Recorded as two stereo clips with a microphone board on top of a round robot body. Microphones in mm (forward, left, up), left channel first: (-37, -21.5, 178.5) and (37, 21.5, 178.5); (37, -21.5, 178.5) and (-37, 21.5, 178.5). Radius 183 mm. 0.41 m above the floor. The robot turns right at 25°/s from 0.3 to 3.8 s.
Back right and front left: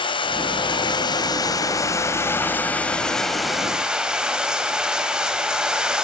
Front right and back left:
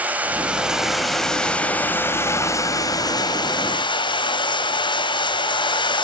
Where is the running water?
140° right, 2.5 m; by 6.1 s 50° right, 2.5 m.